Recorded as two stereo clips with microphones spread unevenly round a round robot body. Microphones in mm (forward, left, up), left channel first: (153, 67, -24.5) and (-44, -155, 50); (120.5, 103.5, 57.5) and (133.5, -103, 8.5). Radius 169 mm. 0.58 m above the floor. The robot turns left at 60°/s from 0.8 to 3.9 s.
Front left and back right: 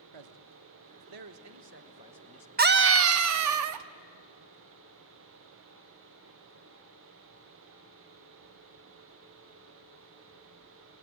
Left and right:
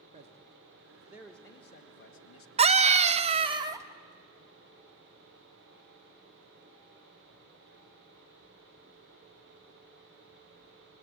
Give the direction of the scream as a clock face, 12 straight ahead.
2 o'clock.